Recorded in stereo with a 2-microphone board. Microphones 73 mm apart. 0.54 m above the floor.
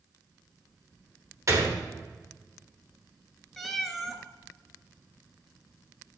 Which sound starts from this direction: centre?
A cat meowing, at 3.6 s.